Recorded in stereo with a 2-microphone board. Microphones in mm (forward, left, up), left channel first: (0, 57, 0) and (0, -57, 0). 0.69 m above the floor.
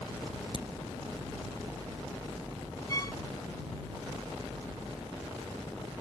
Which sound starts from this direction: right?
A crack, at 0.5 s.